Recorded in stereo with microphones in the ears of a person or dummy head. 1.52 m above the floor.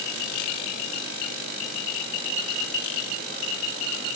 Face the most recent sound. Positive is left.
No sound to turn to.